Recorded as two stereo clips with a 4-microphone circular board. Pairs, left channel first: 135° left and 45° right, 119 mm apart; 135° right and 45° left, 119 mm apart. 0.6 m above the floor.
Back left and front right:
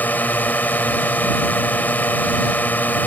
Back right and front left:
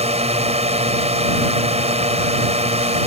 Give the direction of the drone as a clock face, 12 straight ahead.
10 o'clock.